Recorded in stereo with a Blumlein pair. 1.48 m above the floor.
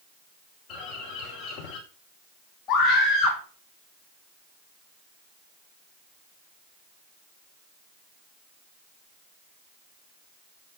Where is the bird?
45° left, 5 m.